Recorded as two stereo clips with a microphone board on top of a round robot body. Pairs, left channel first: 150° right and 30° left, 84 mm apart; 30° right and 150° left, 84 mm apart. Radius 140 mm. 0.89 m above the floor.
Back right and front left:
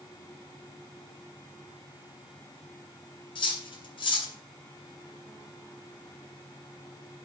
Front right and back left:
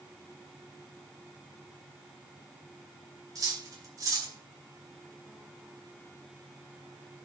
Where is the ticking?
No ticking in this recording.